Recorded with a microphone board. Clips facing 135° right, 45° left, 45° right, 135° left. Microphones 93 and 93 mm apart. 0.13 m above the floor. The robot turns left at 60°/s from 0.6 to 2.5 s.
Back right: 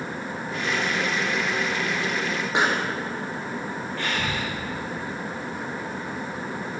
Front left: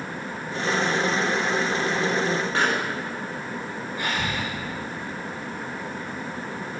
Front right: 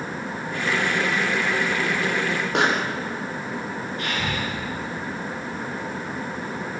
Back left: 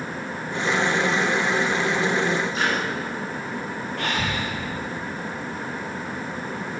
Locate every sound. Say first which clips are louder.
2.5 s a pop: back right 4 dB, front right 3 dB; 60° right, 6 m
4.0 s breathing: front left 1 dB, back left 2 dB; 120° left, 9.5 m